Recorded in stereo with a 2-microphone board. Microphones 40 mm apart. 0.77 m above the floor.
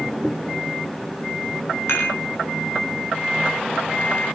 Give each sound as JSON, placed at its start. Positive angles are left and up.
{"t": 1.9, "sound": "dishes clattering", "side_deg": 65, "distance_m": 2.5}